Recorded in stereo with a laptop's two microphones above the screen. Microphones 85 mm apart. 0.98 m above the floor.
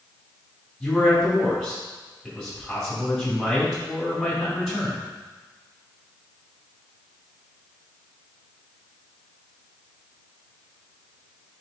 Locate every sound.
0.8 s a man speaking: 5° left (ahead or behind), 3 m